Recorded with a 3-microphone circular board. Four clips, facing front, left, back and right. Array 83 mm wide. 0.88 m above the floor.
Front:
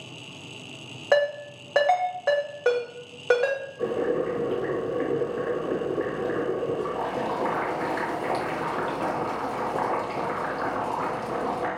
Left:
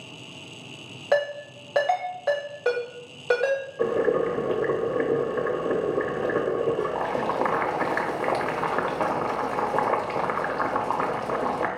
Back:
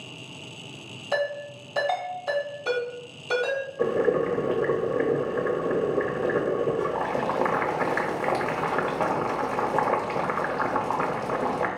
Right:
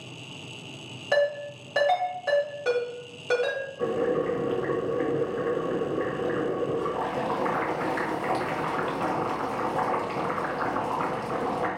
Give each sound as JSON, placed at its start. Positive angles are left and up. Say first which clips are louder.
{"t": 1.1, "sound": "a ringtone", "louder": "even, front 5 dB", "azimuth_deg": 25, "distance_m": 2.0}
{"t": 3.8, "sound": "boiling", "louder": "left 2 dB, back 3 dB", "azimuth_deg": 120, "distance_m": 1.0}